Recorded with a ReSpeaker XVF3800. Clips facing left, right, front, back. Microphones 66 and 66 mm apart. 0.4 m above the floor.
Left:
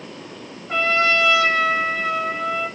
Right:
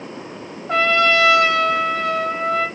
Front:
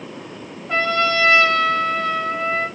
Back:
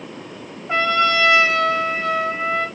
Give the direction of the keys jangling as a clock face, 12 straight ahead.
I don't hear keys jangling.